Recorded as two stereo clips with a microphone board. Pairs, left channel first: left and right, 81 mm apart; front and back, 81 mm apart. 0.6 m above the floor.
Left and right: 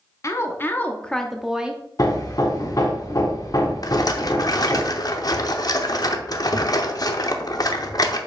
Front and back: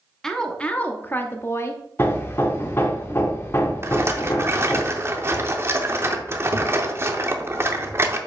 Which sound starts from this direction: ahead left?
Hammering, at 2.0 s.